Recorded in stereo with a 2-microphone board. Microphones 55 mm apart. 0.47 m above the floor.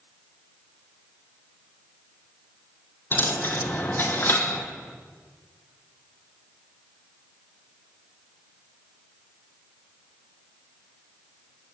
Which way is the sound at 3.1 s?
40° left (ahead or behind).